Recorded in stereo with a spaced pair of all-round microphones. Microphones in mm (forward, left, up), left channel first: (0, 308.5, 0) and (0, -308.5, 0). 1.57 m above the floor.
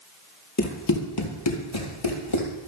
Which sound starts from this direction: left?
Running footsteps, at 0.6 s.